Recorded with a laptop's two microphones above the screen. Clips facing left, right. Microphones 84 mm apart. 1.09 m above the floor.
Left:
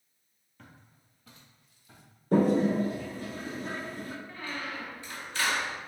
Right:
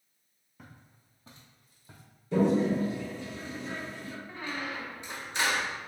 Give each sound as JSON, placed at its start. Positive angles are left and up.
{"t": 0.6, "sound": "footsteps", "side_deg": -10, "distance_m": 1.1}
{"t": 2.3, "sound": "a toilet flushing", "side_deg": 45, "distance_m": 0.6}
{"t": 4.3, "sound": "a squeak", "side_deg": -20, "distance_m": 0.5}